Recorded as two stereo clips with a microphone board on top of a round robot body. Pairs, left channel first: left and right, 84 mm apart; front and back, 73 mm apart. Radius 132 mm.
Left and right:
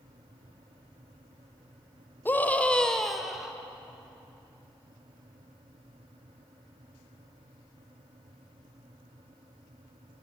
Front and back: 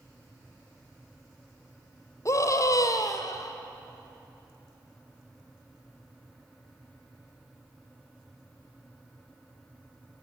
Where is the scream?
30° left, 1.7 m; by 3.5 s 10° right, 1.8 m.